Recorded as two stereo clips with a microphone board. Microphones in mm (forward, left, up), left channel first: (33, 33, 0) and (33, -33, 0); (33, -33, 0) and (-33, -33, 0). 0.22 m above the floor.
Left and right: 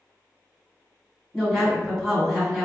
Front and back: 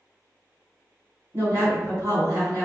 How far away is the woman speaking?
About 1.9 m.